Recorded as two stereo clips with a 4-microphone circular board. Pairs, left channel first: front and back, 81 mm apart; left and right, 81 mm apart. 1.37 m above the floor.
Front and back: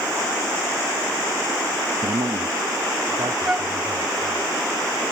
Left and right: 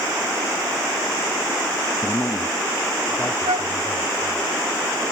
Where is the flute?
105° right.